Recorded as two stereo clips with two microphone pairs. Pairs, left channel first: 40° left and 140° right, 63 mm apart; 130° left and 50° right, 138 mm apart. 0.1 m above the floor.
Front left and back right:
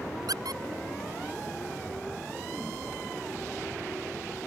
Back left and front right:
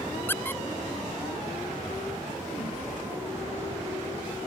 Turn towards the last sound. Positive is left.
turn(degrees=-150)